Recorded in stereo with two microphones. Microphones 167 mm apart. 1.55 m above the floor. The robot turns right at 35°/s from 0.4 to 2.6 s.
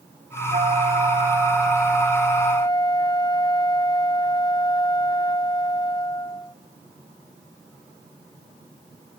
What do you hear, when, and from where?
0.5 s a flute: 50° right, 1.4 m; by 6.5 s 25° left, 1.4 m